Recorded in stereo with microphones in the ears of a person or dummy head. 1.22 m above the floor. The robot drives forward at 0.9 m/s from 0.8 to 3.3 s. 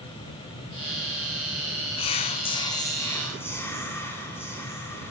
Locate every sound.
2.0 s whispering: 30° left (ahead or behind), 0.6 m; by 5.1 s 15° left (ahead or behind), 1.1 m